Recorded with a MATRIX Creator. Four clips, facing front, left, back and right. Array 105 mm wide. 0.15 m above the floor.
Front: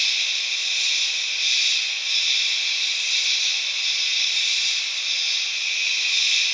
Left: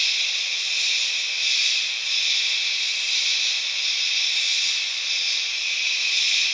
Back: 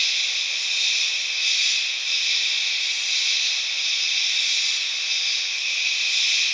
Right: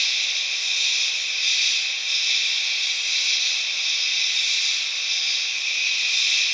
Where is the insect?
155° right, 1.9 m.